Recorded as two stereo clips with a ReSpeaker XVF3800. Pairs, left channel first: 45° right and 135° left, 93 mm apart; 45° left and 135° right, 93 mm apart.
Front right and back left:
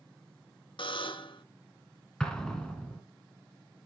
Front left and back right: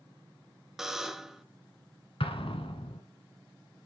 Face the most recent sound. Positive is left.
turn(degrees=35)